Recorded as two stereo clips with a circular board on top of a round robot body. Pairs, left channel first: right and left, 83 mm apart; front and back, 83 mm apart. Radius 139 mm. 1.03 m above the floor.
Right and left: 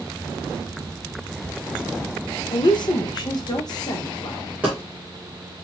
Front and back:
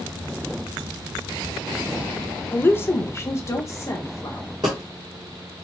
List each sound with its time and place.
2.5 s a woman speaking: 65° right, 0.6 m; by 4.5 s 50° right, 1.7 m
4.6 s a dropped coin: 160° left, 1.0 m